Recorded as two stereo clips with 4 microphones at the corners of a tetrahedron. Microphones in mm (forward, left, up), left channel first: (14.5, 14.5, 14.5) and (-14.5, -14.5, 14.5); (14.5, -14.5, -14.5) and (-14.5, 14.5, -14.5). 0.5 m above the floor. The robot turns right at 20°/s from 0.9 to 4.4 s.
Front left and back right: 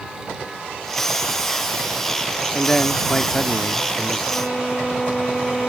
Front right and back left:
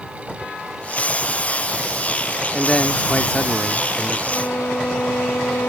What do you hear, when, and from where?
2.5 s a man speaking: 20° right; by 4.2 s 15° left
4.3 s a violin: 35° right